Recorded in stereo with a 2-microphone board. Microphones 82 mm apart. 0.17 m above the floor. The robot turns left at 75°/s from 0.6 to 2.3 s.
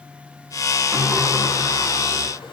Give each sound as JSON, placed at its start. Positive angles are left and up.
{"t": 0.9, "sound": "a sliding door", "azimuth_deg": 180, "distance_m": 6.0}